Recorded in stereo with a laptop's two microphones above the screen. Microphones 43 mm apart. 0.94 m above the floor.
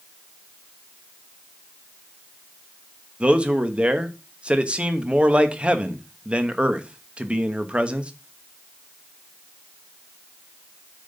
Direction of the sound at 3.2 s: 25° right (ahead or behind).